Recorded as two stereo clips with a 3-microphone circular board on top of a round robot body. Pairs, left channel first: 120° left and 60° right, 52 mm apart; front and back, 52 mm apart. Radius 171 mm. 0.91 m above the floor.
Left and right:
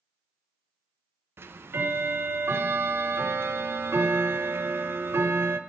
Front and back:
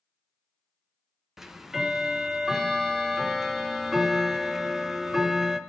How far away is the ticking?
About 0.9 m.